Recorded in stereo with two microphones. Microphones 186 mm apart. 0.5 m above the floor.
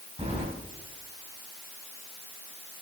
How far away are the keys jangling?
About 2.5 m.